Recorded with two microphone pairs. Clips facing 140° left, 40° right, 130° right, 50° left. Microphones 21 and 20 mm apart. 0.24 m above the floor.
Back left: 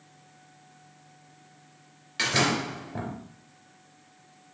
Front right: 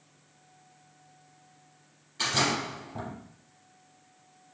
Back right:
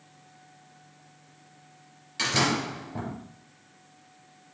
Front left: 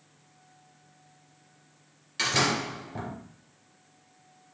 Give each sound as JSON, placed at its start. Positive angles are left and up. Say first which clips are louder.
{"t": 2.2, "sound": "a door slam", "louder": "back left 2 dB, even", "azimuth_deg": 125, "distance_m": 3.0}